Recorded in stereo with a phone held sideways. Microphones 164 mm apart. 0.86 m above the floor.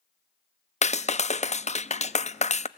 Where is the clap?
45° left (ahead or behind), 0.5 m.